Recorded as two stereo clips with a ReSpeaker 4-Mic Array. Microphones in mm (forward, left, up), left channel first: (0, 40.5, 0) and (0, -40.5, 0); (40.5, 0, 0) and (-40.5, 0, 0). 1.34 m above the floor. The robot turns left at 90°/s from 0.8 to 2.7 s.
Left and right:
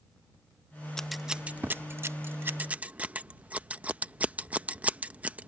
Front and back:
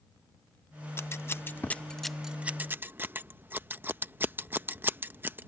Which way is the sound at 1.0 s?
15° left.